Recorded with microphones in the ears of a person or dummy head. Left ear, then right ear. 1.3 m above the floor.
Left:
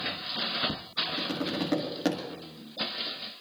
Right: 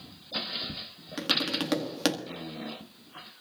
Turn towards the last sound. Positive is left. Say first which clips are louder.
# right 3 dB
turn(degrees=-60)  # may be behind; listen again after turning